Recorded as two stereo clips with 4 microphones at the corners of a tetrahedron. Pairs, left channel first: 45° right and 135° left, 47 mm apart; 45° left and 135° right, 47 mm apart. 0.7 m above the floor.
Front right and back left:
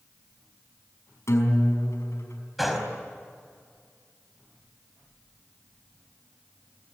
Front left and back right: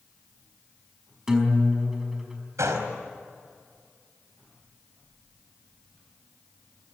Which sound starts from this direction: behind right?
A gunshot, at 2.6 s.